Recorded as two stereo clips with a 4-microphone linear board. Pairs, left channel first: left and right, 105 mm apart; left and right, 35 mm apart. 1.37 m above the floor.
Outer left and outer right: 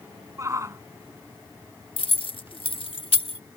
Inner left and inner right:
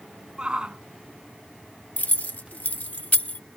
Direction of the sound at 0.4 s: 30° right (ahead or behind).